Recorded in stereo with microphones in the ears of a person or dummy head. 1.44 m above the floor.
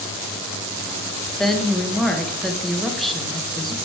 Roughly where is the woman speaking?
Centre.